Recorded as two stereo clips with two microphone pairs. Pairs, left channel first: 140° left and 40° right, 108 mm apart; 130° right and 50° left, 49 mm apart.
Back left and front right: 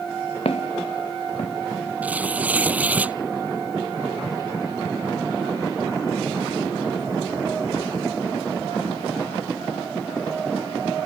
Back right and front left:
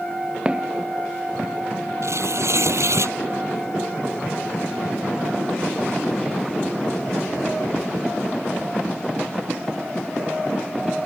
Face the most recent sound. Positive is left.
turn(degrees=35)